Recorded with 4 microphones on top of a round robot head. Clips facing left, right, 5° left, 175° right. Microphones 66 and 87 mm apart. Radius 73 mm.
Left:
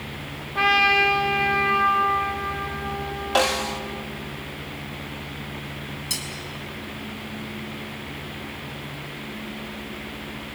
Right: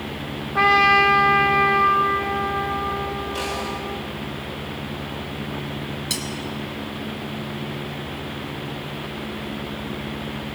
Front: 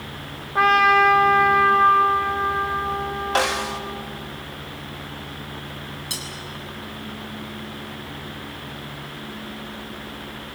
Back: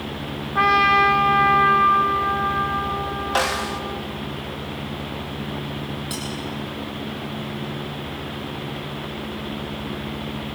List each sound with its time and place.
0.6 s a trumpet: 85° right, 0.9 m
3.4 s a snare drum: 95° left, 1.3 m
6.1 s cutlery clinking: 65° right, 4 m